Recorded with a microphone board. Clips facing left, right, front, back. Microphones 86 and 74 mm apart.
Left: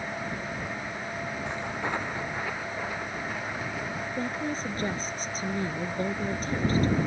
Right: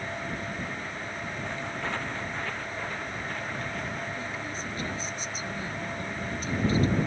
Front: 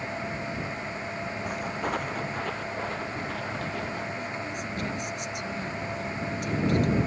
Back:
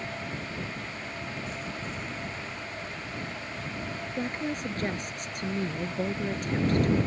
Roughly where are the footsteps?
Ahead.